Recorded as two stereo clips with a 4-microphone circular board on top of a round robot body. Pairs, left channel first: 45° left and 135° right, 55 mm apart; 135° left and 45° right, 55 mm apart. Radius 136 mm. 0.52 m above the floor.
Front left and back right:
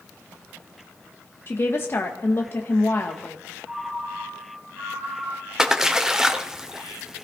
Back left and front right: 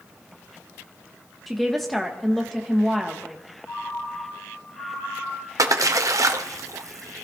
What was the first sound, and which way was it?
A woman speaking, 50° left.